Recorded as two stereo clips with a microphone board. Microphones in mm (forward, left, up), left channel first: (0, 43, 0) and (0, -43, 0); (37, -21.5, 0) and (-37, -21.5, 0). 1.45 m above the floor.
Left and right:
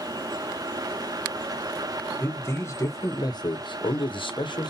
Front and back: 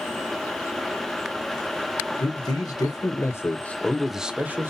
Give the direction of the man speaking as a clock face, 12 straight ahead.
11 o'clock.